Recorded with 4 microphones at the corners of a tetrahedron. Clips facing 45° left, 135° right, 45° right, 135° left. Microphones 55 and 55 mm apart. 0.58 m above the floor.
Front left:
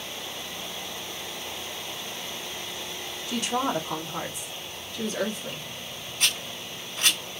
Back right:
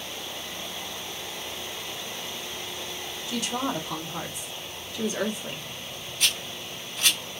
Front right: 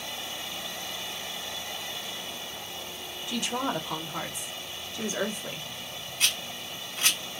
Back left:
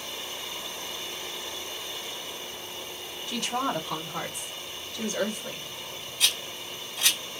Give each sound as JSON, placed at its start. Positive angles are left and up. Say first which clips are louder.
{"t": 3.3, "sound": "a woman speaking", "louder": "front left 2 dB, back left 1 dB", "azimuth_deg": 25, "distance_m": 1.3}
{"t": 6.2, "sound": "a rattle", "louder": "even, back left 1 dB", "azimuth_deg": 0, "distance_m": 2.0}